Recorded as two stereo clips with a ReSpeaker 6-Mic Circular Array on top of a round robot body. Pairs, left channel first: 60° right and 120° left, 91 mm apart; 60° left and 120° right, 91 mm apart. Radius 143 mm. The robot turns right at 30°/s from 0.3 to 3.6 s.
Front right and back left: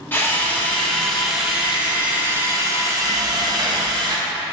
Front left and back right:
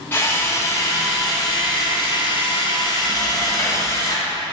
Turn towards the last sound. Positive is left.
turn(degrees=100)